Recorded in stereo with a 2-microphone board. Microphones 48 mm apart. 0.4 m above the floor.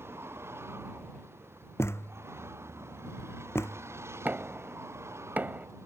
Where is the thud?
65° left (ahead or behind).